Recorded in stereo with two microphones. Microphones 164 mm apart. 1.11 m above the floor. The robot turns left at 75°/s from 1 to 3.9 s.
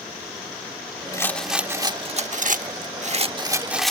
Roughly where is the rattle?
Ahead left.